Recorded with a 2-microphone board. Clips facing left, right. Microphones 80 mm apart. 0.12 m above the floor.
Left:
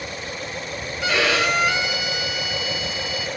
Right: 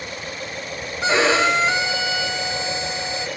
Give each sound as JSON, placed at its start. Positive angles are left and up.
{"t": 1.0, "sound": "a violin", "side_deg": -25, "distance_m": 2.0}